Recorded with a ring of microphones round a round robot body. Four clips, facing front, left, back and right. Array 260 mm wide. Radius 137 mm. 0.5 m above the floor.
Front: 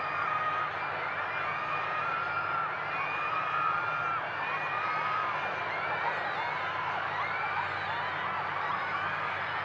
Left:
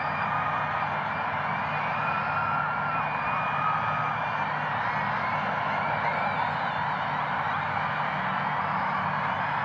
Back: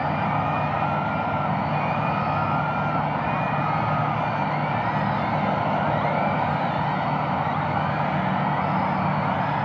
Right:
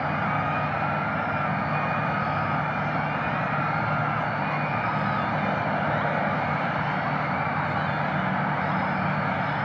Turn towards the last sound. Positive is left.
turn(degrees=-150)